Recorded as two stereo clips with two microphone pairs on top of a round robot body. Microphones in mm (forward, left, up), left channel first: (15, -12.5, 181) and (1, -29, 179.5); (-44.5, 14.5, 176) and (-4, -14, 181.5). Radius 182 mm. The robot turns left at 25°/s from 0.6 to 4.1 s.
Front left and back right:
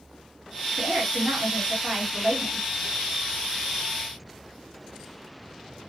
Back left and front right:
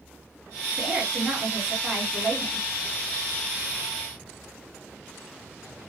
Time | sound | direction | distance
0.8 | a woman speaking | 95° right | 2.5 m